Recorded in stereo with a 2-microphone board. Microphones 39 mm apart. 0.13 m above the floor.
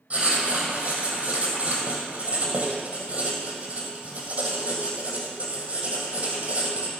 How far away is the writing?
About 2.5 m.